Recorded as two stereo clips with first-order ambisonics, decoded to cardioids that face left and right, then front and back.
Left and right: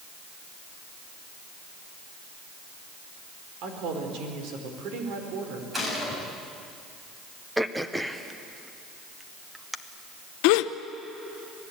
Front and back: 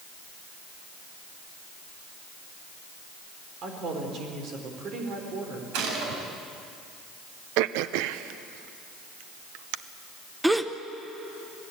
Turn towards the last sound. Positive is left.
turn(degrees=95)